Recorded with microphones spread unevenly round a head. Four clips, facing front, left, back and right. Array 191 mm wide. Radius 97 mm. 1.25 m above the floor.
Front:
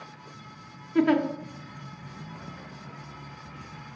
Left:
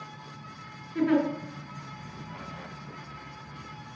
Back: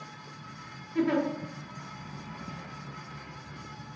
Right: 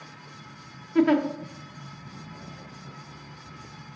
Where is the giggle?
35° right, 0.6 m.